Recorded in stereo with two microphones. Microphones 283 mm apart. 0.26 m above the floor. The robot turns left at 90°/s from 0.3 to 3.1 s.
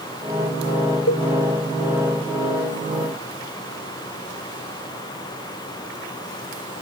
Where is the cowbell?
60° left (ahead or behind); by 1.3 s 75° left (ahead or behind).